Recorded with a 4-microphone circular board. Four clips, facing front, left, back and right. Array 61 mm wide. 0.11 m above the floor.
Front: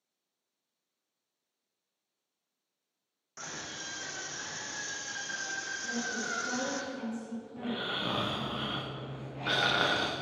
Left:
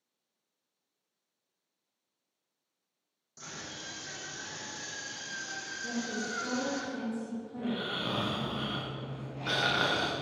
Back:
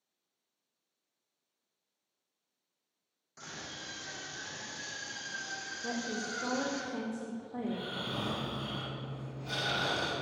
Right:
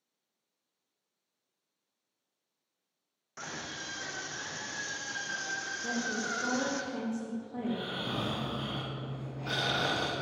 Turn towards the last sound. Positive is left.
turn(degrees=20)